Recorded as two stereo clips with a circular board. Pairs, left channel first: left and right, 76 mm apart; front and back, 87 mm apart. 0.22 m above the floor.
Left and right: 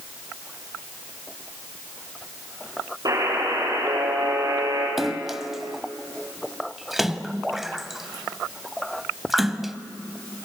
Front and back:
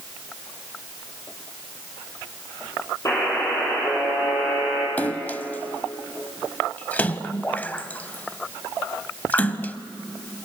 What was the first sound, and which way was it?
A buzzer, 55° right.